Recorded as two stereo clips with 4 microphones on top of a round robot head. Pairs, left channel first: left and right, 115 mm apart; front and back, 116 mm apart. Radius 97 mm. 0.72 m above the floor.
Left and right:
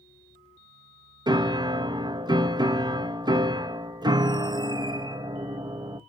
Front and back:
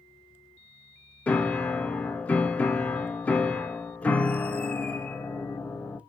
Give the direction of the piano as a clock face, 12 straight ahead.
2 o'clock.